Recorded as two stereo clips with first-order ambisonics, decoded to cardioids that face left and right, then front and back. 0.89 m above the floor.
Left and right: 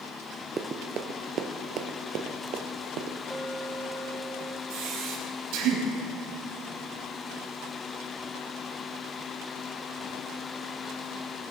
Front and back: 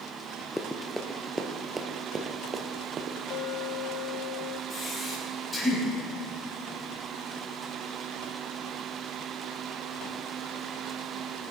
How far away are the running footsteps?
About 0.9 m.